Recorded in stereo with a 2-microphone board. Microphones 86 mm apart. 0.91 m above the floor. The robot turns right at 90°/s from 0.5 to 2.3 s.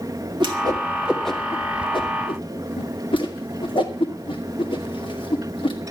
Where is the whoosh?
60° right (ahead or behind), 2.5 m; by 5.8 s 75° left (ahead or behind), 2.5 m.